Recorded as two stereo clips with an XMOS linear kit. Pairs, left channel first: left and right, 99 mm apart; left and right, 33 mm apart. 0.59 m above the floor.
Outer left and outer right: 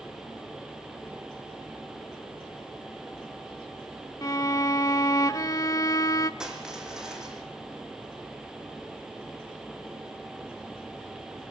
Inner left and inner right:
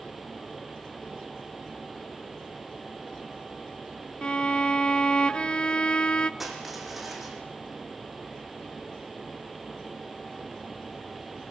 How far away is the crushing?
About 5 m.